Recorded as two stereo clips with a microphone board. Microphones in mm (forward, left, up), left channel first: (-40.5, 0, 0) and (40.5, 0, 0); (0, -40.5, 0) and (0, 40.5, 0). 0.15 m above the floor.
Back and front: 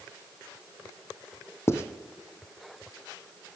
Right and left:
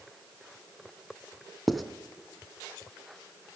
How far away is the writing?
About 0.7 m.